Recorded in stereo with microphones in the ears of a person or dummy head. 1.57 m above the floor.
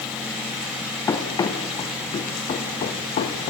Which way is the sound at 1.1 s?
15° left (ahead or behind).